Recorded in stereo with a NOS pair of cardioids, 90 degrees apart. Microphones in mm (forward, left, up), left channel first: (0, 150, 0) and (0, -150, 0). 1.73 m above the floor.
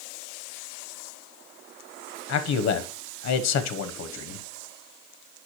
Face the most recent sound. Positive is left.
turn(degrees=65)